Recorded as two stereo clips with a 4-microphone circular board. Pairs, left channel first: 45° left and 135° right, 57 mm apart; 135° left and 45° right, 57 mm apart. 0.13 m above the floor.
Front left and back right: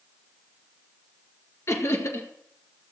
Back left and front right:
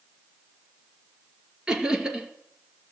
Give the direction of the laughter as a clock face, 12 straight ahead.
11 o'clock.